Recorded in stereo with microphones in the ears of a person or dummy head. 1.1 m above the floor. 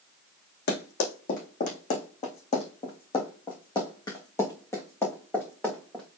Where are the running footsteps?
55° left (ahead or behind), 2.5 m; by 6.0 s 5° left (ahead or behind), 3.5 m.